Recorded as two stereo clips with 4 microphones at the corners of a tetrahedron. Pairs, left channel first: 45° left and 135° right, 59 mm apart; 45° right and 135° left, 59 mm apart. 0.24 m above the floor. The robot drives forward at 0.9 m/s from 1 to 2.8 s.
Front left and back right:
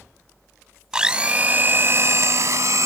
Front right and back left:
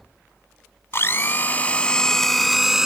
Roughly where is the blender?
Ahead right.